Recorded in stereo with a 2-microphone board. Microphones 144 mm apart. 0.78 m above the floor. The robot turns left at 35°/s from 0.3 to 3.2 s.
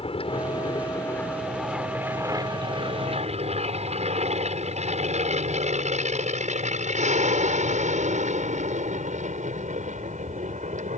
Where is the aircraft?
45° left (ahead or behind); by 11.0 s 65° right (ahead or behind).